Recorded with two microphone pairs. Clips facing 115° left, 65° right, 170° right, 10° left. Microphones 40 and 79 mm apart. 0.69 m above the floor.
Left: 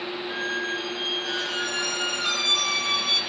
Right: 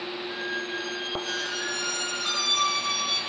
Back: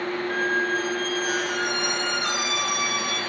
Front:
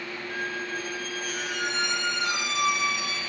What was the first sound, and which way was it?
A squeak, 155° left.